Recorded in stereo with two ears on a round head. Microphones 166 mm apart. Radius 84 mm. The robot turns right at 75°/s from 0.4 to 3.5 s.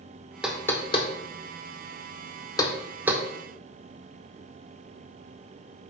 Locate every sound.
0.4 s knocking: 5° right (ahead or behind), 0.8 m; by 3.2 s 20° right (ahead or behind), 0.8 m